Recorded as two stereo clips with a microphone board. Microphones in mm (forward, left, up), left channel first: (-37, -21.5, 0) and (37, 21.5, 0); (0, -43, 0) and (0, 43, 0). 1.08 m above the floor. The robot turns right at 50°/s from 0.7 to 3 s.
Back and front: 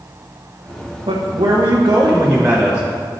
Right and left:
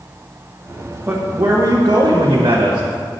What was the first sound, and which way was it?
A man speaking, 30° left.